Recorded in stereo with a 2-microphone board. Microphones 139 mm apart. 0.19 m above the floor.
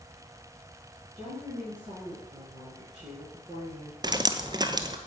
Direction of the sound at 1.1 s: 35° right (ahead or behind).